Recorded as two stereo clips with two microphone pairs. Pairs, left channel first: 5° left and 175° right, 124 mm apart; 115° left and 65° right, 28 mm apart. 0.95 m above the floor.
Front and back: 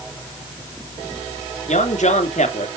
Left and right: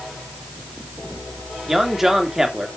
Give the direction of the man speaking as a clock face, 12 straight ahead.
12 o'clock.